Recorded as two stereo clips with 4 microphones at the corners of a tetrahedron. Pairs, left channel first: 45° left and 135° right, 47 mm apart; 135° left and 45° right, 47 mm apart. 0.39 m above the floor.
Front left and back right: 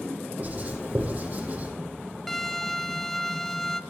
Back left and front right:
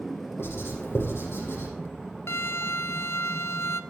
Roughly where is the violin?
Behind left.